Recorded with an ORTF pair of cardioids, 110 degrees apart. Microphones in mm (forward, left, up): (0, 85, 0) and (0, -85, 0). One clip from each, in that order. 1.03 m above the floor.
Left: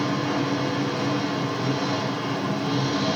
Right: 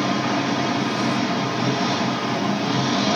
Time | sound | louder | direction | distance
0.0 | an engine running | right 3 dB | 50° right | 1.2 m